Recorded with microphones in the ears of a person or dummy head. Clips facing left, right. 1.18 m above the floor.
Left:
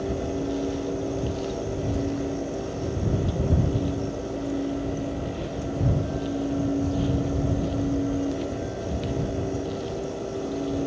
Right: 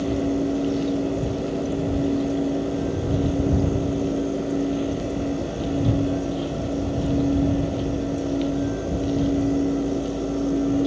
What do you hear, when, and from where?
Only background noise.